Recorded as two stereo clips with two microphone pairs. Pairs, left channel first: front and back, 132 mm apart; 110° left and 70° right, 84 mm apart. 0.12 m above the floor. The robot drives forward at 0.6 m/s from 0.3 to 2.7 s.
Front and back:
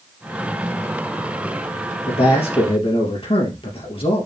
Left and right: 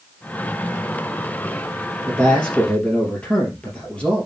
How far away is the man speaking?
About 3.5 m.